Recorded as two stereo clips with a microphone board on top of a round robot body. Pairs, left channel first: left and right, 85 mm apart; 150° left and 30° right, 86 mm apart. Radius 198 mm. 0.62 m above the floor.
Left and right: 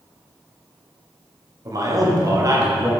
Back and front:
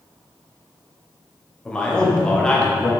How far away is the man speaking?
About 2.0 m.